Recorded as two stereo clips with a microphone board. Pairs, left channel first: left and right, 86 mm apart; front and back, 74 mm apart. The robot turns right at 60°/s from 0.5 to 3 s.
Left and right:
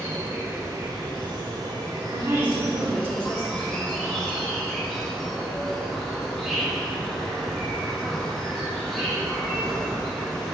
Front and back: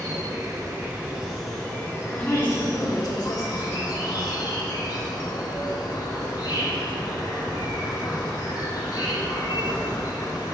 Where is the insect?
145° right, 1.6 m; by 10.6 s 5° left, 1.6 m.